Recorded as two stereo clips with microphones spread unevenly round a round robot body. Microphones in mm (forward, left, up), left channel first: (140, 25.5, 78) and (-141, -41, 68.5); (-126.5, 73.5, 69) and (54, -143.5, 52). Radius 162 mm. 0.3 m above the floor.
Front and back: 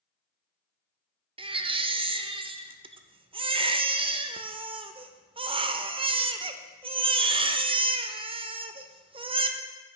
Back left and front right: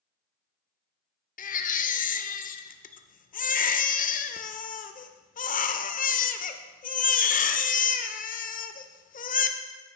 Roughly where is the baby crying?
Behind left.